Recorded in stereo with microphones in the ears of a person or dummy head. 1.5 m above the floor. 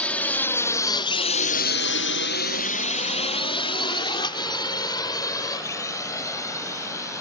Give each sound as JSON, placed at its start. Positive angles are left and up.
{"t": 0.0, "sound": "a drone", "side_deg": 5}